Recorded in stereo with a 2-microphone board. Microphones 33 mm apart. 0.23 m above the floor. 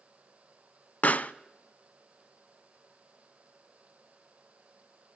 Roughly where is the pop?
Left.